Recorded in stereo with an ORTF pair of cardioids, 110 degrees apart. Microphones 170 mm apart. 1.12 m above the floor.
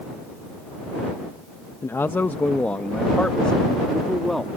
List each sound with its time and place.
1.8 s a man speaking: 15° left; by 4.5 s straight ahead